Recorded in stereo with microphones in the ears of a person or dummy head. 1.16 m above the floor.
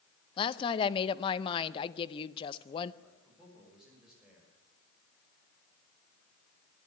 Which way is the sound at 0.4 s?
30° left (ahead or behind).